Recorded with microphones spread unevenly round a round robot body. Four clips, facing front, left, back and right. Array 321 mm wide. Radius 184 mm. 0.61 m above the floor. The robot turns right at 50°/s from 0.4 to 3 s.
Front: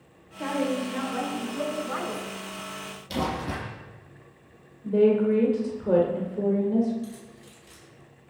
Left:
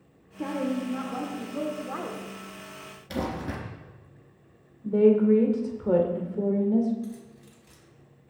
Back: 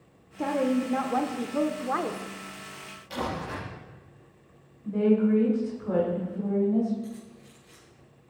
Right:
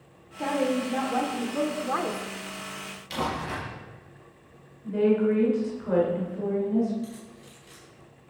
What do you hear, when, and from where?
0.4 s a woman speaking: 145° left, 1.7 m; by 2.3 s 120° right, 1.7 m
3.1 s crumpling: 45° left, 4 m
4.8 s a woman speaking: 60° left, 2.5 m
7.0 s keys jangling: 45° left, 4 m